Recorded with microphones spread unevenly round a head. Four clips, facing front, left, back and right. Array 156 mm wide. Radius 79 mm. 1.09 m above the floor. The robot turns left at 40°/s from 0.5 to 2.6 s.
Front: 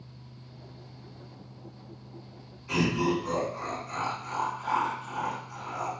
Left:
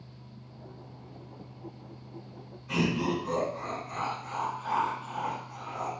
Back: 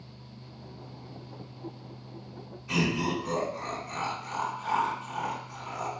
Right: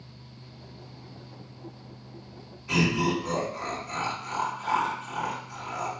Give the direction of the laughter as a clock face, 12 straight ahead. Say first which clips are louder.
Right 3 dB, front 2 dB; 4 o'clock.